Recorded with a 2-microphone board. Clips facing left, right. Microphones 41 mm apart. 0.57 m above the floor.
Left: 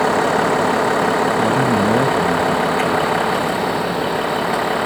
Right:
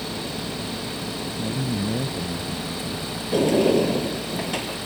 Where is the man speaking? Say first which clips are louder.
Left 12 dB; 45° left (ahead or behind).